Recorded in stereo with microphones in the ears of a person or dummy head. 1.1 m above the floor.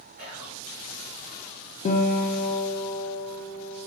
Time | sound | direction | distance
0.2 | whispering | 45° right (ahead or behind) | 0.9 m
1.9 | a guitar | 35° left (ahead or behind) | 0.5 m